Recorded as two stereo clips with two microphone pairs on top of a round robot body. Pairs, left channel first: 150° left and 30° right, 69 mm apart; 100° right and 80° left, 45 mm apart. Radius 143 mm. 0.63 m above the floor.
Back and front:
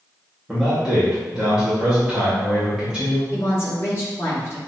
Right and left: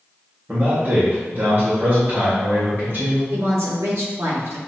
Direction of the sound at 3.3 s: 100° left.